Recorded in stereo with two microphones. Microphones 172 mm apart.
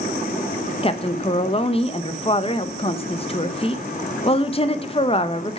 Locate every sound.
0.8 s a woman speaking: 35° left (ahead or behind), 0.9 m